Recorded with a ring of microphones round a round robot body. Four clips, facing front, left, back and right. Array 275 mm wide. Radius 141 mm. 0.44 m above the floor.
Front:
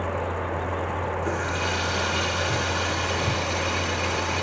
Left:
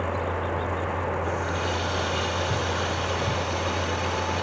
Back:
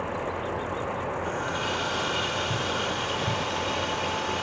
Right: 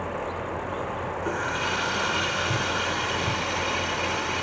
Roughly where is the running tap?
Right.